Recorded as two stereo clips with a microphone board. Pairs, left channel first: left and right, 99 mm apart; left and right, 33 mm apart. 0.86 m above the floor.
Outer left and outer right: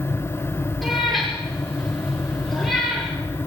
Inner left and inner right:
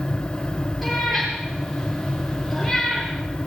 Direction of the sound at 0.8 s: Centre (ahead or behind).